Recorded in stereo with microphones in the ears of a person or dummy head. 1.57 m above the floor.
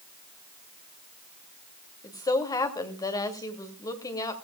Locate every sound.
2.0 s a woman speaking: 20° left (ahead or behind), 2.5 m